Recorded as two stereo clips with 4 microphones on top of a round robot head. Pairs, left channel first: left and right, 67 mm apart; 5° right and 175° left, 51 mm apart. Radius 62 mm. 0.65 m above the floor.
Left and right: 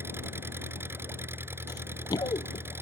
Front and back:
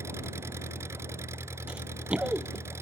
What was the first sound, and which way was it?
An engine running, 145° right.